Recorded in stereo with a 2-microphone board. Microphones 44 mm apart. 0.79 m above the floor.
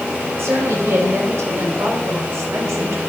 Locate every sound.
0.4 s a woman speaking: 75° right (ahead or behind), 4.5 m